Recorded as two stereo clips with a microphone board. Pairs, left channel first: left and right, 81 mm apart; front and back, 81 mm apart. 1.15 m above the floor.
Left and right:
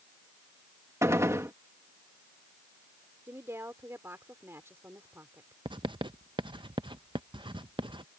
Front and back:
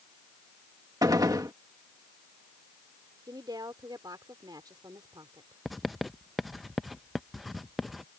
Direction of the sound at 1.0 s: 140° right.